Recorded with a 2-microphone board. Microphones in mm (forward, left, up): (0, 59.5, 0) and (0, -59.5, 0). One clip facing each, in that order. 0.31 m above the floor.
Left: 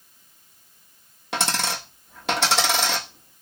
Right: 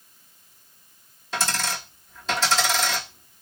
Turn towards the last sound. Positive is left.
turn(degrees=75)  # may be behind; listen again after turning